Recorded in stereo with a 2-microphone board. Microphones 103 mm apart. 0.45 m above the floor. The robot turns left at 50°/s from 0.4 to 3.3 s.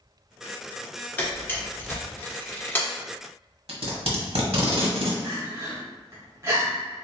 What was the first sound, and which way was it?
A camera shutter, 15° left (ahead or behind).